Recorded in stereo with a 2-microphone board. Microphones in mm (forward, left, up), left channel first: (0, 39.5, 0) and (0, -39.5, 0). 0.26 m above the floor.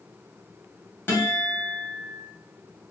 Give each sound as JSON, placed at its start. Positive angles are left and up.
{"t": 1.1, "sound": "a guitar", "side_deg": 25, "distance_m": 1.0}